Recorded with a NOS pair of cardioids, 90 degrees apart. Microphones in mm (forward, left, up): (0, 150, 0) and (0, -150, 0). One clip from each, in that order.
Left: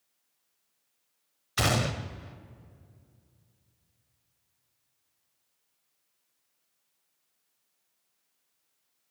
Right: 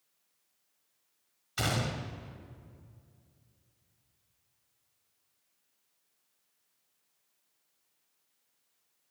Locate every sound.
1.6 s a gunshot: 35° left, 0.7 m